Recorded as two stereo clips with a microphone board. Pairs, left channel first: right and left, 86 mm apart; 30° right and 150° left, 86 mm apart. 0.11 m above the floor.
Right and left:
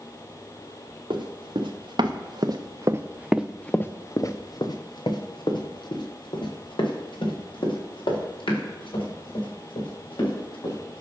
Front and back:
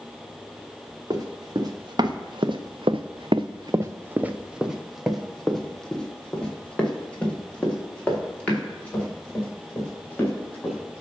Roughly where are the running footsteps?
Left.